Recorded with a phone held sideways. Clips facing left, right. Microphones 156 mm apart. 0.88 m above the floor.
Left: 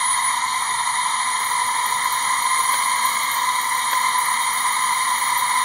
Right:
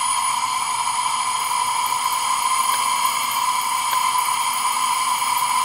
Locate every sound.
0.0 s a drone: 10° right (ahead or behind)